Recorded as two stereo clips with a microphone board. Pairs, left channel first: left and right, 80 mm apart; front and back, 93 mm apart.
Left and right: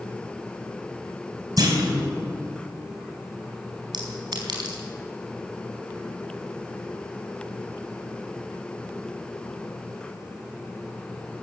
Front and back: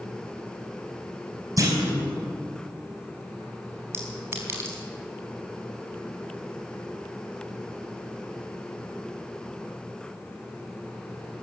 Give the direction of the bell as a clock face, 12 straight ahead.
No bell in this recording.